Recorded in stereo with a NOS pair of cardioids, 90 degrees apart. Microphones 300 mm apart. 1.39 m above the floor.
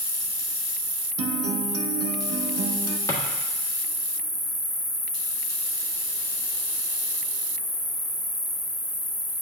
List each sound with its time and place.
0.0 s an insect: 5° right, 0.9 m
1.2 s a guitar: 50° right, 0.7 m
3.1 s a drawer: 10° left, 1.5 m